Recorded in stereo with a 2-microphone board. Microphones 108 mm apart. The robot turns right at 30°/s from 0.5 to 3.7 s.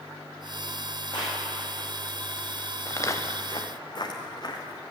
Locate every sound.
1.1 s a clap: 45° left (ahead or behind), 6 m; by 1.4 s 55° left (ahead or behind), 6 m
2.9 s footsteps: 30° left (ahead or behind), 1.3 m; by 4.8 s 45° left (ahead or behind), 3 m